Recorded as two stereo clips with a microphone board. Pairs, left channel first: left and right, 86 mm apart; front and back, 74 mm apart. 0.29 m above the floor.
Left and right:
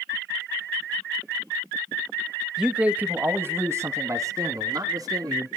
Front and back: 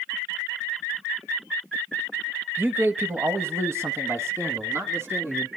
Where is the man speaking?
165° right, 1.0 m; by 5.5 s 130° right, 2.5 m.